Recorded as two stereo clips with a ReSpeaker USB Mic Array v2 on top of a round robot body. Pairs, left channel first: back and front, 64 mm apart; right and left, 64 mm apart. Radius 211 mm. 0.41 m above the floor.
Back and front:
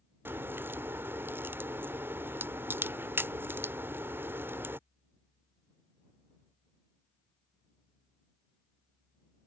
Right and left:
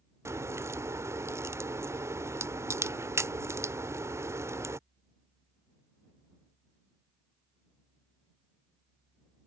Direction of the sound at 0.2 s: 55° left.